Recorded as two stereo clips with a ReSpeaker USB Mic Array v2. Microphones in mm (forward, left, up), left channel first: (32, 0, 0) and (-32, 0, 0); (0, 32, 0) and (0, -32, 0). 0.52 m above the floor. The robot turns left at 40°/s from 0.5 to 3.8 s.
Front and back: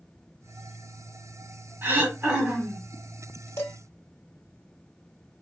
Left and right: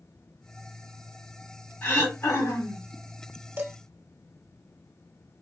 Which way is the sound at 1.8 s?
150° left.